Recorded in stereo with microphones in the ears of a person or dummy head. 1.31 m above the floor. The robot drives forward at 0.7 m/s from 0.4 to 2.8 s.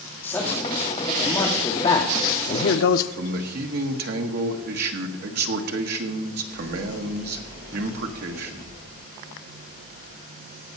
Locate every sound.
0.2 s a man speaking: 15° left (ahead or behind), 1.9 m; by 3.1 s 60° left (ahead or behind), 0.5 m
3.2 s a man speaking: 55° right (ahead or behind), 1.2 m